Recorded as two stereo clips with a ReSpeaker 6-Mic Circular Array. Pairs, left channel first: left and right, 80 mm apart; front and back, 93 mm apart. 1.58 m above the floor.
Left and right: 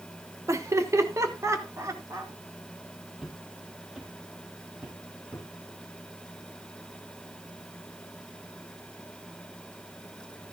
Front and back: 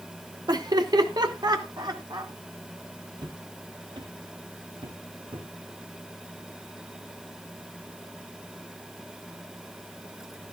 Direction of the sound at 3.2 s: 175° right.